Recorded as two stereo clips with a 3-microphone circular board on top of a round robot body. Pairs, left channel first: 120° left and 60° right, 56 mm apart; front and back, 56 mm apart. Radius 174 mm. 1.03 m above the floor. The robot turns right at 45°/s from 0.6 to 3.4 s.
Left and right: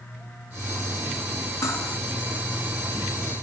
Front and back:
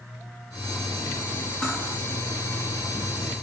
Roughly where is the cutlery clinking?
Left.